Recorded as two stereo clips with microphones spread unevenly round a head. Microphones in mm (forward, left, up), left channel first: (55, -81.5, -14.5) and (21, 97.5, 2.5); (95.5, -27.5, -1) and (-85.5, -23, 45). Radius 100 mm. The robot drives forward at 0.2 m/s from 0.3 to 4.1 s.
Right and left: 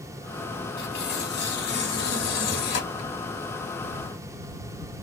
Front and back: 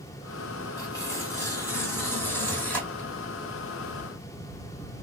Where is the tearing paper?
80° right, 2 m; by 3.1 s 95° right, 2 m.